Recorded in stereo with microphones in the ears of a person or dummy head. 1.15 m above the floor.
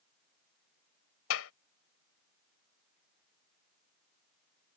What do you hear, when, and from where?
1.3 s a clap: 85° left